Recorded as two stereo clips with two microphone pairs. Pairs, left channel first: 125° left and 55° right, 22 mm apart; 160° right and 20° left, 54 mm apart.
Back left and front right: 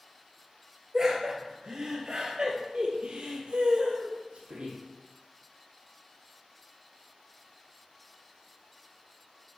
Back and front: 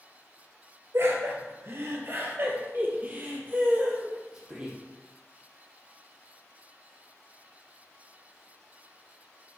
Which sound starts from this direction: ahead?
Laughter, at 0.9 s.